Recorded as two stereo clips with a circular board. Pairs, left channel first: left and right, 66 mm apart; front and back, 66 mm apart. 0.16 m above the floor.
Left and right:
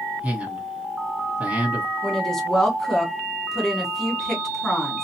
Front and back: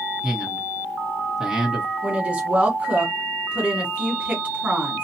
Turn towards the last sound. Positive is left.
turn(degrees=160)